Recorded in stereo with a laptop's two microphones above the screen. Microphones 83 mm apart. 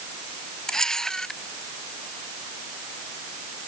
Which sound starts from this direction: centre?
A camera shutter, at 0.7 s.